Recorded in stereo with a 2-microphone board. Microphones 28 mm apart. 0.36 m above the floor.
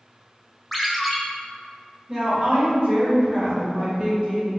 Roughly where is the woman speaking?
Right.